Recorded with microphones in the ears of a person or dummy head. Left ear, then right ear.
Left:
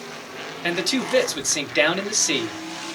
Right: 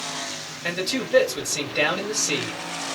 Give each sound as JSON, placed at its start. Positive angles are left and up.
{"t": 0.6, "sound": "a man speaking", "side_deg": 50, "distance_m": 1.6}